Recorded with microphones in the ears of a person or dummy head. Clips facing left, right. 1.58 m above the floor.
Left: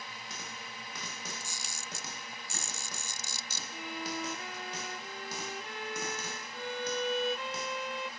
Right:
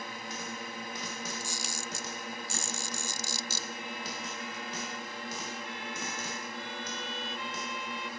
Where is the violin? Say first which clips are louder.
Left 2 dB; 45° left (ahead or behind).